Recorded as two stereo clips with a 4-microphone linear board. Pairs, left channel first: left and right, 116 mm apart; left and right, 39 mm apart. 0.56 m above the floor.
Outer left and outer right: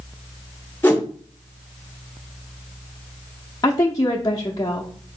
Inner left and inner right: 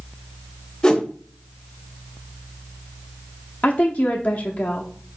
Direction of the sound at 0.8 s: 20° left (ahead or behind).